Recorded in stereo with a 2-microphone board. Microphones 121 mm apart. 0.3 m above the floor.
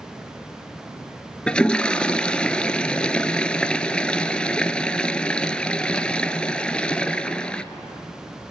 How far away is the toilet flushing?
About 0.8 m.